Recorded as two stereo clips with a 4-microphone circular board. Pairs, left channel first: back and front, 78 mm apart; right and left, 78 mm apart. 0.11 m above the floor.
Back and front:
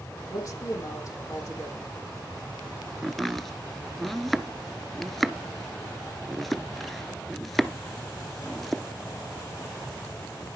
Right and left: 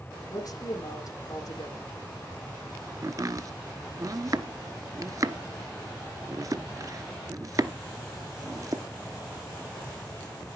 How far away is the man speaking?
About 6 m.